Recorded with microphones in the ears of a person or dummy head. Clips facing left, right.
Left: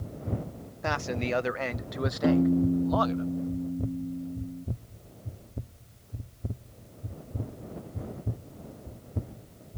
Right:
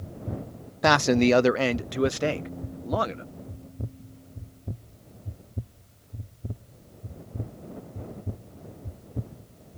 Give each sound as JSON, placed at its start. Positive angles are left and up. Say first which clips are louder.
{"t": 0.8, "sound": "a man speaking", "louder": "right 11 dB", "side_deg": -70}
{"t": 2.2, "sound": "a piano", "louder": "left 8 dB", "side_deg": 75}